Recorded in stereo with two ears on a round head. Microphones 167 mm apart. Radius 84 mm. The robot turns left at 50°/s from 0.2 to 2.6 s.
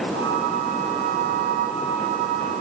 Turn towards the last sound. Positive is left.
No sound to turn to.